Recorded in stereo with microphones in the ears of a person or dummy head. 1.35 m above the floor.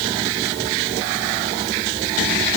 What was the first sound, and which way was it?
Only background noise.